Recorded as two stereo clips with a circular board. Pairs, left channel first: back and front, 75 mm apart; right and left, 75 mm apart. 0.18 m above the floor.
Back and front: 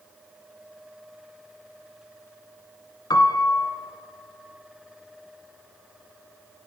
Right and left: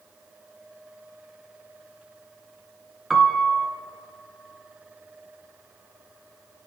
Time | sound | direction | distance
3.1 | a piano | 170° left | 1.0 m